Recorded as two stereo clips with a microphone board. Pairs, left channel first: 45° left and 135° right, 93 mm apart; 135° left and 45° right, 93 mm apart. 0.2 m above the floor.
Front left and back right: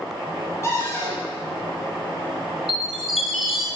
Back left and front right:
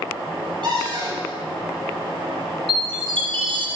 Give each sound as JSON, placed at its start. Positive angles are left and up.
{"t": 0.6, "sound": "a cupboard door", "azimuth_deg": -10, "distance_m": 5.0}
{"t": 2.7, "sound": "a chime", "azimuth_deg": -45, "distance_m": 2.0}